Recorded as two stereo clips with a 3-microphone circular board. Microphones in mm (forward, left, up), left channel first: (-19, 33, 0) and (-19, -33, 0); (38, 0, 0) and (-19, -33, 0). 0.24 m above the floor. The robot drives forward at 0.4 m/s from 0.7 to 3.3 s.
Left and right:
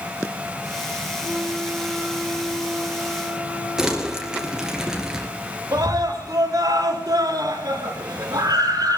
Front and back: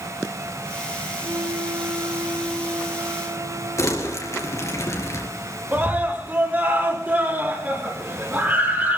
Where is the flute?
165° right, 1.4 m; by 4.8 s 170° right, 2 m.